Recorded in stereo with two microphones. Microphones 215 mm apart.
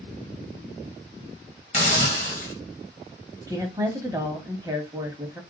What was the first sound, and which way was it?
A hiss, 35° left (ahead or behind).